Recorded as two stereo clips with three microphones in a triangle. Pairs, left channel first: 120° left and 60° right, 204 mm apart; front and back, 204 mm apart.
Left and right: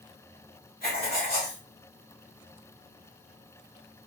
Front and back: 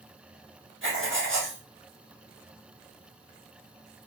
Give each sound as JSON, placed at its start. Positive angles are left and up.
{"t": 0.8, "sound": "writing", "azimuth_deg": 160, "distance_m": 1.9}